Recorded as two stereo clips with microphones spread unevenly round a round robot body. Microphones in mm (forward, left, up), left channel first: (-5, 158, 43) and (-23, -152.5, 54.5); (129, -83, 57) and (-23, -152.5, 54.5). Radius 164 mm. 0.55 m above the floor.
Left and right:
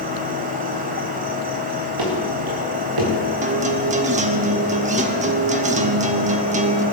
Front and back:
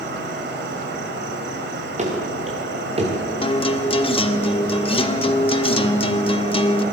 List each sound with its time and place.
0.0 s an insect: 160° right, 1.8 m
2.0 s running footsteps: 110° right, 4.5 m; by 3.1 s 100° right, 4.5 m
3.4 s a guitar: 30° right, 1.2 m